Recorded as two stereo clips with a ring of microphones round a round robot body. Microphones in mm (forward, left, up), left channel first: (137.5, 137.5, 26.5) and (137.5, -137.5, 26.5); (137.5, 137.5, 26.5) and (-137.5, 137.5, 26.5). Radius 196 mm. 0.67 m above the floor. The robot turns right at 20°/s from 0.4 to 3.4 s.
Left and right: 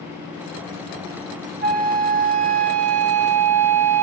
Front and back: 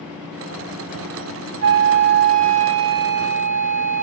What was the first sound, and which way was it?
A flute, 155° right.